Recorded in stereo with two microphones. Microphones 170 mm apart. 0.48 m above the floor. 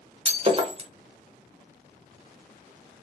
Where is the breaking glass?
35° right (ahead or behind), 0.7 m.